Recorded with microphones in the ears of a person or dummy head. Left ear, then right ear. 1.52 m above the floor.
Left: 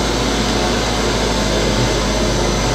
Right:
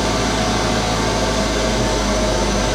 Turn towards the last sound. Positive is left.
turn(degrees=-5)  # may be behind; listen again after turning